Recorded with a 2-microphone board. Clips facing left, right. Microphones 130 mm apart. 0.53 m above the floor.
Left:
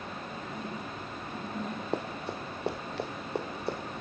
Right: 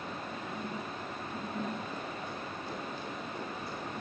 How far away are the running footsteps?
About 2.5 m.